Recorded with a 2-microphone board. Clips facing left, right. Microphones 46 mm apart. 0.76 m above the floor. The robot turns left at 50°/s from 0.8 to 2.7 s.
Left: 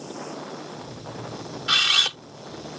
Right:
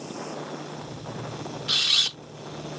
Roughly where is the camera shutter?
Left.